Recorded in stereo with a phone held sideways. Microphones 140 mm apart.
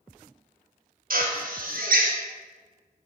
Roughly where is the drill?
Right.